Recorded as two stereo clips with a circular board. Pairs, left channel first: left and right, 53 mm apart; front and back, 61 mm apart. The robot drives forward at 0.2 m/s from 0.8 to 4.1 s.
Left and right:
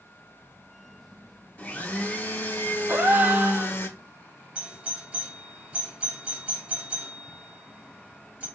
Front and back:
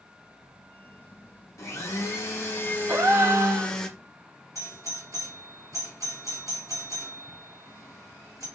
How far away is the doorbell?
About 1.6 m.